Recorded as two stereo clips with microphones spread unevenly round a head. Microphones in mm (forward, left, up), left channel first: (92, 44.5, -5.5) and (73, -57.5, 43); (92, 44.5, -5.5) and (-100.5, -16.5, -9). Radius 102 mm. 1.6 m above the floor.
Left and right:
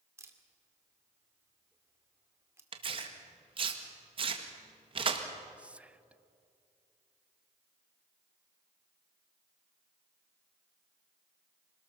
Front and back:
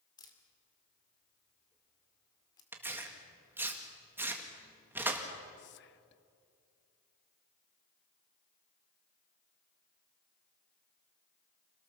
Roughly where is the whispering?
Ahead right.